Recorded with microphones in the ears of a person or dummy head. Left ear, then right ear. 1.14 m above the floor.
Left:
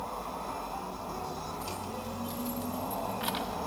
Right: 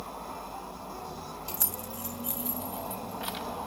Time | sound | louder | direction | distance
1.5 | keys jangling | left 1 dB | 60° right (ahead or behind) | 1.0 m